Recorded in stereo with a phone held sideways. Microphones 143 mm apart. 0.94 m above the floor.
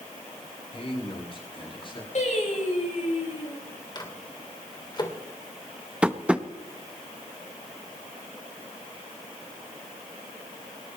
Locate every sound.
0.7 s a man speaking: 45° left (ahead or behind), 7.5 m; by 2.0 s 35° left (ahead or behind), 7.5 m
2.1 s singing: 60° left (ahead or behind), 6 m
4.0 s a microwave: 30° left (ahead or behind), 2.5 m
6.0 s tapping: 10° right (ahead or behind), 0.9 m